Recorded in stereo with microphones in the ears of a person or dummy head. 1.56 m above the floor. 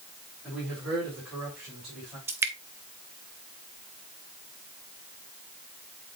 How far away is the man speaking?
About 4.5 m.